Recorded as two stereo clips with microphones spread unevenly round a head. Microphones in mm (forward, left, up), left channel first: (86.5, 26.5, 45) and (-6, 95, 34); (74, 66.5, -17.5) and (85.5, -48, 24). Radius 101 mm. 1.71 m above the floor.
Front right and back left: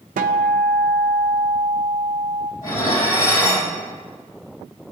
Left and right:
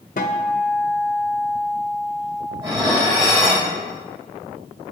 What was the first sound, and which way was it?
A guitar, 150° left.